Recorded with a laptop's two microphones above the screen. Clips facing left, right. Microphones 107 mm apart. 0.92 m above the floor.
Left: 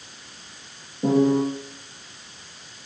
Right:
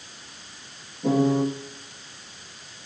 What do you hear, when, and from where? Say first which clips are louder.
1.0 s a piano: left 2 dB; 70° left (ahead or behind), 6.5 m